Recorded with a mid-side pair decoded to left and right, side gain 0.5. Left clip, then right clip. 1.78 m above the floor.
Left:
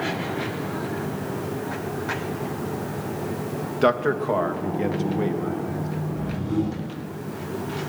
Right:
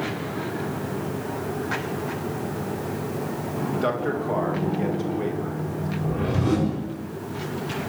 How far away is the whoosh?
About 7 m.